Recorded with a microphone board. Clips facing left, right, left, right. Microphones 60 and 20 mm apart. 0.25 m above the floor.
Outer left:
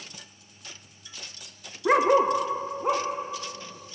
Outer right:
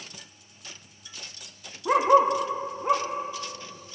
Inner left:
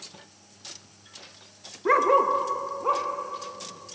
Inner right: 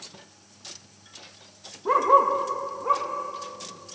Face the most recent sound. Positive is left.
turn(degrees=70)  # may be behind; listen again after turning